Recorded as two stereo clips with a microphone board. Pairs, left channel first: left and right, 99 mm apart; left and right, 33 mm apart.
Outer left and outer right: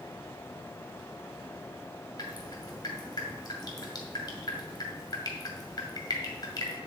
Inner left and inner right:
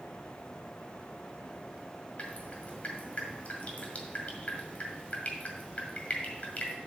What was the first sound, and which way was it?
Dripping, 45° left (ahead or behind).